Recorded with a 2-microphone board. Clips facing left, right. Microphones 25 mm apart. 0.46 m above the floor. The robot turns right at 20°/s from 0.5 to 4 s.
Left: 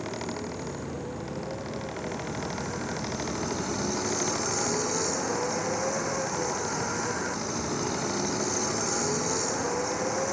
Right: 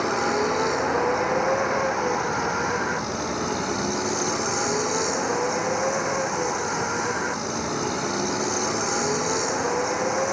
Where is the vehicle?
90° right; by 10.3 s 20° right.